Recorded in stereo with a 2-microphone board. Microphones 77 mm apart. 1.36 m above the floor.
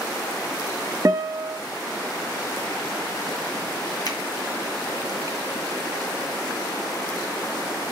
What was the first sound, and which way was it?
A guitar, 45° right (ahead or behind).